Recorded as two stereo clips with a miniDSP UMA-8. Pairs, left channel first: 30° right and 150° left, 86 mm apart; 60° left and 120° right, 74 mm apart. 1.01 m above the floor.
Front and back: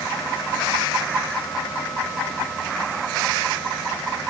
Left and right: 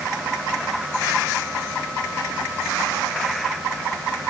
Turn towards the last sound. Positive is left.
No sound to turn to.